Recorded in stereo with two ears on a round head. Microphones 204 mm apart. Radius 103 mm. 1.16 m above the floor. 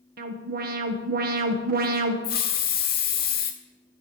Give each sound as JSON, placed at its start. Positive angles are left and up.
{"t": 0.2, "sound": "an alarm", "side_deg": -40, "distance_m": 1.3}
{"t": 2.2, "sound": "a hiss", "side_deg": 40, "distance_m": 1.5}